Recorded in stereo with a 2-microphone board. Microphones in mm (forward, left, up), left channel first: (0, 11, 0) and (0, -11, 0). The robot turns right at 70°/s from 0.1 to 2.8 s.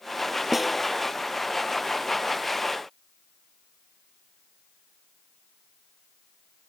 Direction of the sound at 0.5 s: 10° right (ahead or behind).